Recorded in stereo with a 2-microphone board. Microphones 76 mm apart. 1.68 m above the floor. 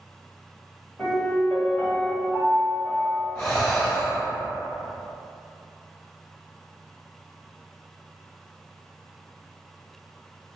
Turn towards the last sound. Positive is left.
turn(degrees=30)  # may be behind; listen again after turning